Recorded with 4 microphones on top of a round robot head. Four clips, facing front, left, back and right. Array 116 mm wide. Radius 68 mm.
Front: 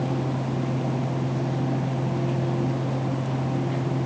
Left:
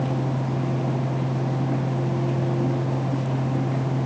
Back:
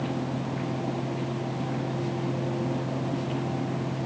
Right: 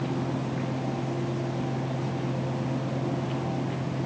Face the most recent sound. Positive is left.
No sound to turn to.